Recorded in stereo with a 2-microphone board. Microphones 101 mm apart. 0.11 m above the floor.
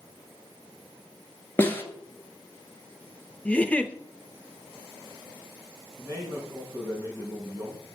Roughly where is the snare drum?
Centre.